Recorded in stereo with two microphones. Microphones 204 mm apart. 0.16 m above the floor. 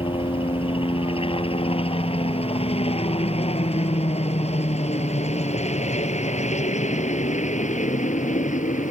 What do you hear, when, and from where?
0.0 s a helicopter: 25° left (ahead or behind); by 8.9 s 35° left (ahead or behind)